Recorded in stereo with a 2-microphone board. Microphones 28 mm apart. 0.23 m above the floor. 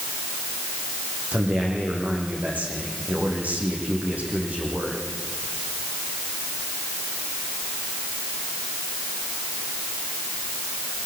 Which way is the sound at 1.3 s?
65° right (ahead or behind).